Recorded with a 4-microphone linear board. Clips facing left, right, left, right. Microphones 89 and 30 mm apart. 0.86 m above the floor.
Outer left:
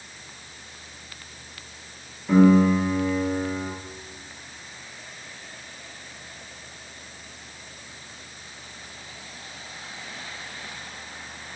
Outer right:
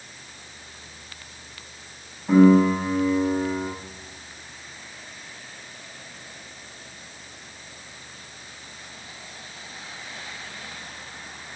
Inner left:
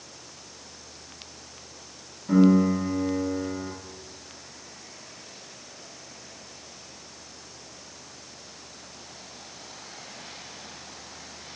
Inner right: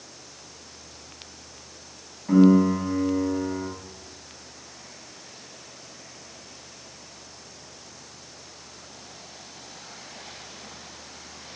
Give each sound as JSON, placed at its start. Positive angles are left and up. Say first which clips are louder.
{"t": 2.3, "sound": "a piano", "louder": "outer right 1 dB, inner right 2 dB", "side_deg": -40, "distance_m": 1.7}